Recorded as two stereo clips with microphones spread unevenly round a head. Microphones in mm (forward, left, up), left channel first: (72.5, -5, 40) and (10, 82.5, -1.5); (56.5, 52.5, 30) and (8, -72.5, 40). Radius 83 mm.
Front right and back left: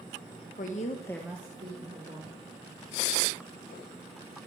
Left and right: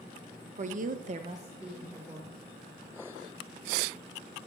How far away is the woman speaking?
About 0.8 m.